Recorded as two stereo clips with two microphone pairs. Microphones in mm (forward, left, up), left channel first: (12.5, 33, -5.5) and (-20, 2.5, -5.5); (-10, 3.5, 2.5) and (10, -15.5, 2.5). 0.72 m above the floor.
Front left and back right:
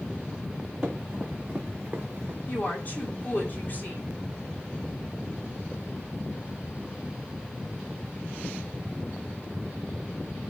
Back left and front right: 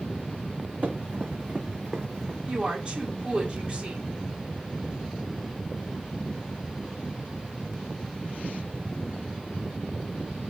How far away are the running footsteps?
About 2.5 m.